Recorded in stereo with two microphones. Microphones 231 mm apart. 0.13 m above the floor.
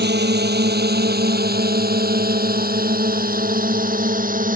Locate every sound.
0.0 s a drone: 50° right (ahead or behind); by 4.6 s 40° right (ahead or behind)